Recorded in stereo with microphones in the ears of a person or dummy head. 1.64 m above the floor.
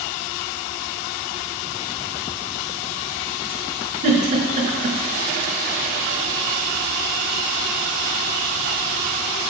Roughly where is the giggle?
Right.